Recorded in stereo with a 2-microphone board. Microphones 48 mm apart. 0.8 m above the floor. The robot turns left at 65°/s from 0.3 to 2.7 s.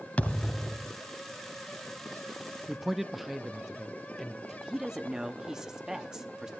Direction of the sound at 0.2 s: 30° left.